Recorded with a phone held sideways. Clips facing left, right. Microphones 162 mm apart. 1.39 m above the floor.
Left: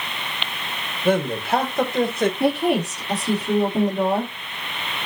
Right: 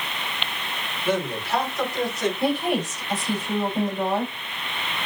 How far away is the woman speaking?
About 2.5 m.